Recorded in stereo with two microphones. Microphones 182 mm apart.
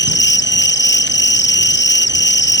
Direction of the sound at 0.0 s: 75° left (ahead or behind).